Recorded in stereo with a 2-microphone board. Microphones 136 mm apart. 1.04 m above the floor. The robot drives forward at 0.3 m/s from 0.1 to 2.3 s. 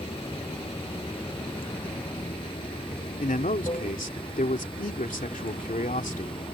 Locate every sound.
0.0 s running water: 40° left (ahead or behind)
3.2 s a man speaking: 80° left